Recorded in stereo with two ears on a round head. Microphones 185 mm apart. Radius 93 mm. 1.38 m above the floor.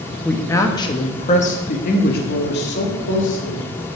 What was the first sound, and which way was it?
A woman speaking, 5° left (ahead or behind).